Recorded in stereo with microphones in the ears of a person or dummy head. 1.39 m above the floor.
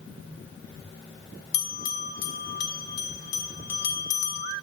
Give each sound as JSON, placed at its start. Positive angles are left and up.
{"t": 1.5, "sound": "a bell", "side_deg": 50, "distance_m": 2.5}